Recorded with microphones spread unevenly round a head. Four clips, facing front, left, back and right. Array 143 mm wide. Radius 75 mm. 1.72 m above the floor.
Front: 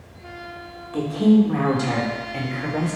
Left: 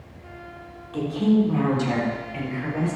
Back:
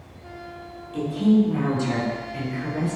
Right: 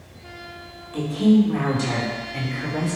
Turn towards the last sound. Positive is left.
turn(degrees=-20)